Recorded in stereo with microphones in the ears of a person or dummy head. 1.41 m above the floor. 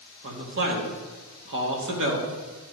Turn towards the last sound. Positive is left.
turn(degrees=-65)  # may be behind; listen again after turning